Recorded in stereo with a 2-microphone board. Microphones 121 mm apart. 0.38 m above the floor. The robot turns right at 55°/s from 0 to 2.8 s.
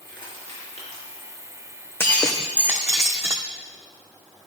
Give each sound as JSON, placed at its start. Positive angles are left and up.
{"t": 0.1, "sound": "crushing", "side_deg": 35, "distance_m": 4.0}
{"t": 2.0, "sound": "breaking glass", "azimuth_deg": 160, "distance_m": 1.2}